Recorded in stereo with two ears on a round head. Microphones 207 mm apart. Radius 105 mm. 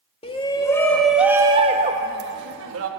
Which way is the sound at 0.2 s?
25° left (ahead or behind).